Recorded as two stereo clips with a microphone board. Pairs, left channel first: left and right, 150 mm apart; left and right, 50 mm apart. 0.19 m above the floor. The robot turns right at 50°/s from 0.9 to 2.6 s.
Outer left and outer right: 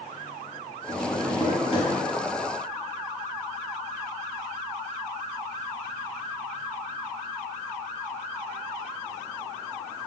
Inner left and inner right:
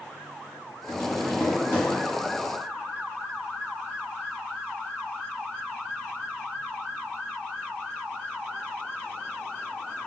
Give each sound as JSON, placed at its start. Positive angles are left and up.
{"t": 0.9, "sound": "tapping", "azimuth_deg": 55, "distance_m": 1.8}